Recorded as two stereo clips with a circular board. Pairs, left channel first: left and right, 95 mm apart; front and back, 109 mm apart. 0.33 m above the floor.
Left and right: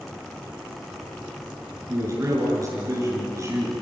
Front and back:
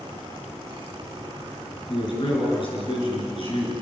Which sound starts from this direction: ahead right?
A man speaking, at 1.9 s.